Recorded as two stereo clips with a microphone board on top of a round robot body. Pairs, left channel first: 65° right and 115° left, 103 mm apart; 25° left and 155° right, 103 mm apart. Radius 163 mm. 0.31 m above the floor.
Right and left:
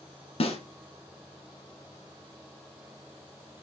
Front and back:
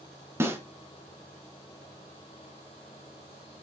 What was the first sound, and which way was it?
A snare drum, 90° right.